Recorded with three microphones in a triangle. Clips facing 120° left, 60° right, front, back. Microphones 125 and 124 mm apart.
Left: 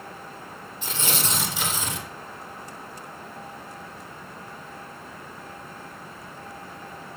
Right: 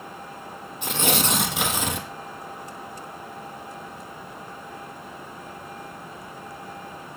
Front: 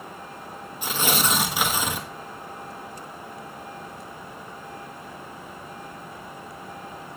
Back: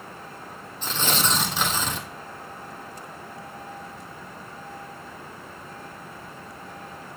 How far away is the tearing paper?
About 1.1 m.